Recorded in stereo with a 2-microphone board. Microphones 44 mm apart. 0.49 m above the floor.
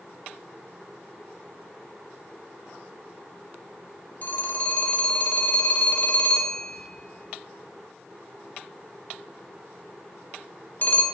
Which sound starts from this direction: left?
A phone ringing, at 4.2 s.